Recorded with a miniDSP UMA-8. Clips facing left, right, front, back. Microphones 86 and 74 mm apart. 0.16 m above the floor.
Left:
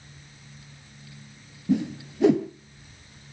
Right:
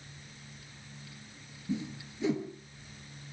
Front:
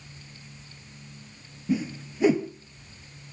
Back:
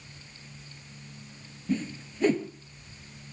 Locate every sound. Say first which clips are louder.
1.7 s a whoosh: left 11 dB, front 3 dB; 80° left, 1.0 m